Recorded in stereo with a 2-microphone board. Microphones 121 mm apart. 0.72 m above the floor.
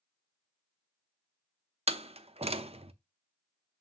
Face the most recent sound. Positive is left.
turn(degrees=-55)  # may be behind; listen again after turning